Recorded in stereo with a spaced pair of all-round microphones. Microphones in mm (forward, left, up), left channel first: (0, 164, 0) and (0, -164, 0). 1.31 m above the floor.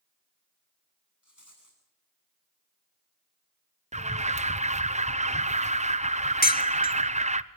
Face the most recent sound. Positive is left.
turn(degrees=25)  # may be behind; listen again after turning